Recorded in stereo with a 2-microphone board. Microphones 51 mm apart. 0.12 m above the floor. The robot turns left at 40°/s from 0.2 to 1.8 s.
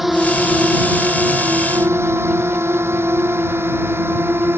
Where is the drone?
5° right (ahead or behind); by 4.6 s 50° right (ahead or behind).